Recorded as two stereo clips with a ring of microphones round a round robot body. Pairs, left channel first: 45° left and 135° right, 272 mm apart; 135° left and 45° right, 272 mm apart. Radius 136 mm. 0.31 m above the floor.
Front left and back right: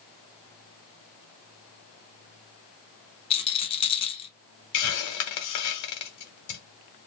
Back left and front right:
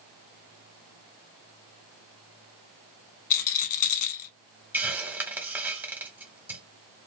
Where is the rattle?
115° left, 0.8 m.